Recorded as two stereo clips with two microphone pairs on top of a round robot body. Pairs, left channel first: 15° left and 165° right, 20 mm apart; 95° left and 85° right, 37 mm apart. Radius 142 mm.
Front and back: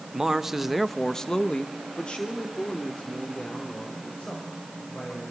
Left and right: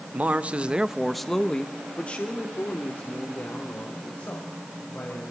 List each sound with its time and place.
0.1 s a man speaking: 125° right, 1.6 m; by 5.3 s 50° left, 6 m